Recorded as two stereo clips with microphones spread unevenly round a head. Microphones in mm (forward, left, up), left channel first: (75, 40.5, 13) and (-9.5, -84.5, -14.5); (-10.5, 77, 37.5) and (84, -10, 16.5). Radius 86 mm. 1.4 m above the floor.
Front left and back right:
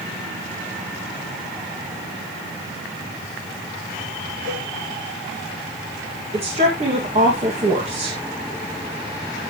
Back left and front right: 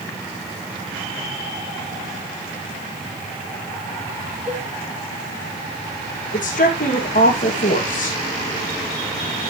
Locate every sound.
4.5 s a cowbell: 5° right, 7.5 m
6.3 s a woman speaking: straight behind, 2 m